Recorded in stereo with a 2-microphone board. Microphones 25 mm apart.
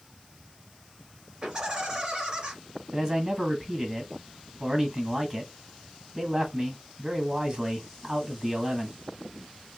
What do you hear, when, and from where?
1.4 s laughter: 25° right (ahead or behind), 2.5 m
2.9 s a man speaking: 25° right (ahead or behind), 1.7 m